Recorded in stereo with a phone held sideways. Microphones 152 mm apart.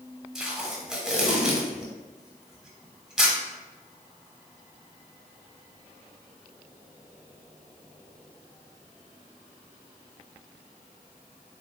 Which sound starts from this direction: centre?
Tape being pulled, at 0.3 s.